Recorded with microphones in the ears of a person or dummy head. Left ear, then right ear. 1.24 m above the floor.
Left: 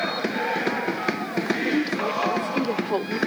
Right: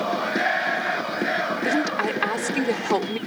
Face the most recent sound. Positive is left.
turn(degrees=-55)  # may be behind; listen again after turning